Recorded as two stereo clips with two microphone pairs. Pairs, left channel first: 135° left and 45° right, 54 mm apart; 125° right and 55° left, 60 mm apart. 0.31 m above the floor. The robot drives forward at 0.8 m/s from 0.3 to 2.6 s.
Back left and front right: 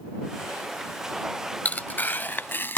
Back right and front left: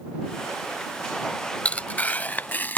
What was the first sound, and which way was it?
Tearing paper, straight behind.